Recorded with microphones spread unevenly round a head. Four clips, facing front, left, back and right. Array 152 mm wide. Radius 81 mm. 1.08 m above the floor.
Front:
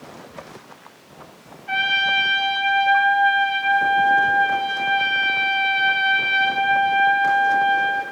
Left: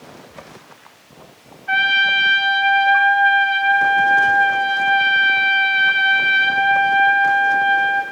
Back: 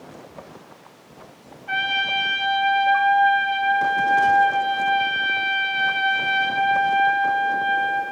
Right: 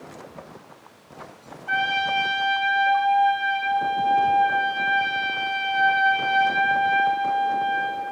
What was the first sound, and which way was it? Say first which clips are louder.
A trumpet: left 5 dB, front 3 dB; 115° right.